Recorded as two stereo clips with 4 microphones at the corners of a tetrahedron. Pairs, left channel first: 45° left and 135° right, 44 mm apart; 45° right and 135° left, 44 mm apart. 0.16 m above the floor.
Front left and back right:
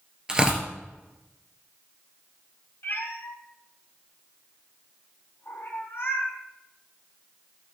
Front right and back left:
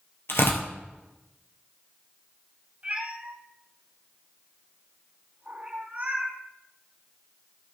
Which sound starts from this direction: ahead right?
Tearing paper, at 0.3 s.